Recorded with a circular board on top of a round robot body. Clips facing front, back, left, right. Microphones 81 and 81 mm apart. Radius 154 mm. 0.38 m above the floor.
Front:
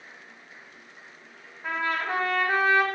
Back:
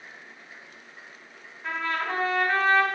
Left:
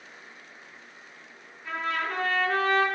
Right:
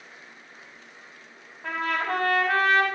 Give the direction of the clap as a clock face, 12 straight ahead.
No clap in this recording.